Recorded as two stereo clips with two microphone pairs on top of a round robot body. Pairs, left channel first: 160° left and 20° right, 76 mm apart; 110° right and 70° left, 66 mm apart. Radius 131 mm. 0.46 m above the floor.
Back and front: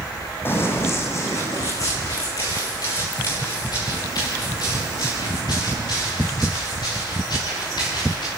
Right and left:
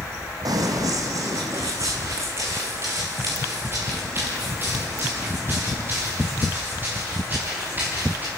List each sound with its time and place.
0.5 s running footsteps: 100° left, 2 m; by 8.3 s 135° left, 7.5 m